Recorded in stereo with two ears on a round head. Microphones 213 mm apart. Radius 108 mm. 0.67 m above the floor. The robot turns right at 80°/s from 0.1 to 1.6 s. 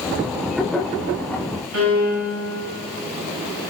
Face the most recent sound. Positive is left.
turn(degrees=-60)  # may be behind; listen again after turning